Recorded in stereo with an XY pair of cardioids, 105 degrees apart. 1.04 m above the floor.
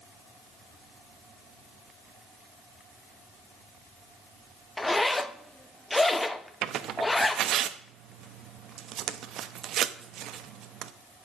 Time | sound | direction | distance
4.8 | a zipper | 15° left | 0.9 m
6.6 | tearing paper | 70° right | 0.9 m